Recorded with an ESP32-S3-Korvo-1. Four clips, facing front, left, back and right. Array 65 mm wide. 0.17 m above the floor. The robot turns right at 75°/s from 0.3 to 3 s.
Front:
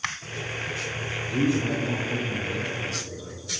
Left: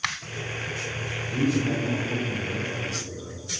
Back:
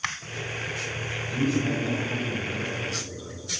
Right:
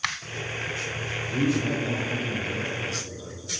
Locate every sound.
1.3 s a man speaking: 20° right, 2.5 m; by 3.4 s 105° left, 2.5 m